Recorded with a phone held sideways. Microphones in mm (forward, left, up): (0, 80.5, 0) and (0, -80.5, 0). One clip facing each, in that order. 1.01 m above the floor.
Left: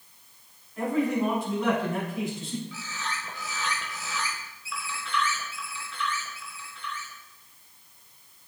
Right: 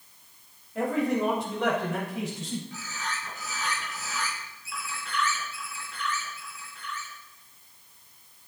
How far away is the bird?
About 3 m.